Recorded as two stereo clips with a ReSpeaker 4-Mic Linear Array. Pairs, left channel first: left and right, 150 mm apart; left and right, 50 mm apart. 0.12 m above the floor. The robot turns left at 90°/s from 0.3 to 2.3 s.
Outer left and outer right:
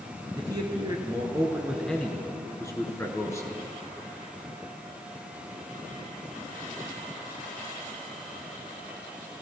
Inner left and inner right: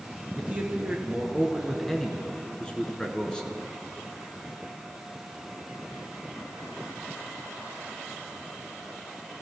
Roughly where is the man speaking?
Right.